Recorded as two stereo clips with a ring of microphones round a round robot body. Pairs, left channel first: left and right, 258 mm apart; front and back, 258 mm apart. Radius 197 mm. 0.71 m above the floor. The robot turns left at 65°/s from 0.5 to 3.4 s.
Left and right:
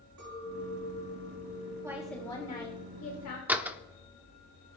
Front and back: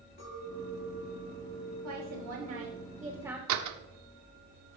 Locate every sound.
0.2 s a clink: 60° right, 6 m; by 2.8 s 150° left, 6 m
1.8 s a woman speaking: 165° right, 2.5 m; by 3.4 s 95° left, 2.5 m
3.5 s a door slam: 175° right, 1.2 m